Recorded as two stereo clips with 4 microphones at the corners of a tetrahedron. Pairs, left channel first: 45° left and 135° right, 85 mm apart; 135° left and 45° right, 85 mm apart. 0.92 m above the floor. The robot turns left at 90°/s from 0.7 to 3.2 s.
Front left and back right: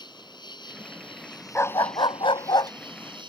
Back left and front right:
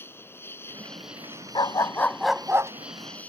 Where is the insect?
75° left; by 3.3 s 150° right.